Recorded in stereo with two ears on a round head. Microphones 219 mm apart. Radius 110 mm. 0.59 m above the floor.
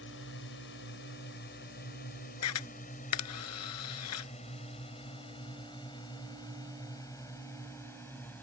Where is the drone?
50° left (ahead or behind); by 8.4 s 5° left (ahead or behind).